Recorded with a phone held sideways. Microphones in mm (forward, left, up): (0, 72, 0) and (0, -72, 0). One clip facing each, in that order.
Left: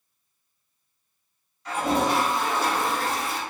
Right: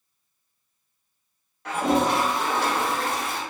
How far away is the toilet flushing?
About 0.7 m.